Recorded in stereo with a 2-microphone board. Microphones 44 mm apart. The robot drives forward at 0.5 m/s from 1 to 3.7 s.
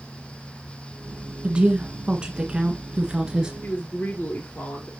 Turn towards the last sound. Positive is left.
turn(degrees=50)  # may be behind; listen again after turning